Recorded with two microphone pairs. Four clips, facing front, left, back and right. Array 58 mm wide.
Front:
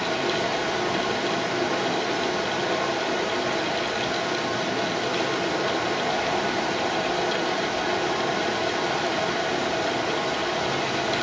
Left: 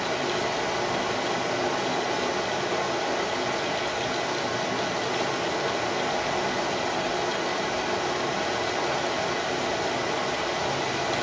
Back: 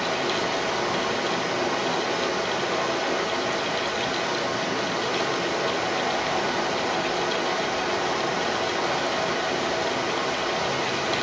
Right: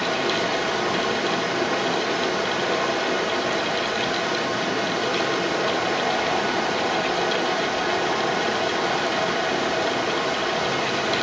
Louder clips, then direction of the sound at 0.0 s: Right 4 dB, even; 90° right.